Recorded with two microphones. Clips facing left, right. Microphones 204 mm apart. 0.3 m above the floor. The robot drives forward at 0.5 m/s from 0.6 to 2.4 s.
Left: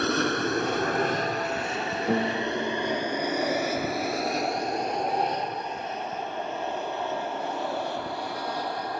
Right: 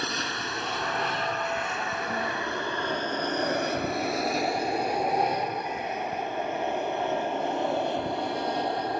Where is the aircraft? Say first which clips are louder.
Left 9 dB; 60° left (ahead or behind); by 9.0 s 20° right (ahead or behind).